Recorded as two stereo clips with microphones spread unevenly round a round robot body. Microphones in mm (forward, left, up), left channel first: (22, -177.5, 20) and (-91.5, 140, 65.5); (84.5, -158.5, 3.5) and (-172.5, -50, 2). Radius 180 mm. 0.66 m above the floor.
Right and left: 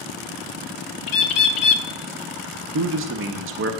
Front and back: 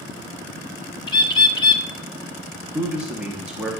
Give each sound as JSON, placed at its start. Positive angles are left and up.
{"t": 1.1, "sound": "a bird", "azimuth_deg": -95, "distance_m": 0.5}
{"t": 2.7, "sound": "a man speaking", "azimuth_deg": 75, "distance_m": 0.6}